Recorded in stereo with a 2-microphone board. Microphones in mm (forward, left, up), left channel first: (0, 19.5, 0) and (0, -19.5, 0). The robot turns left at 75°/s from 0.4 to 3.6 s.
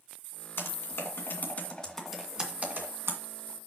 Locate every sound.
0.6 s typing on a keyboard: 65° left (ahead or behind), 2 m; by 3.2 s 80° right, 2 m